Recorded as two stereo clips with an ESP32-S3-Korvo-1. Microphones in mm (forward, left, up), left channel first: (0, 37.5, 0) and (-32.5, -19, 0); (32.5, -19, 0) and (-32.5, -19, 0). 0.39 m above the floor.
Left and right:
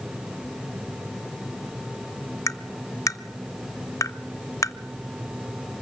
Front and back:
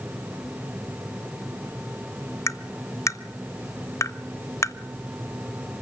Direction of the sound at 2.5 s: 35° left.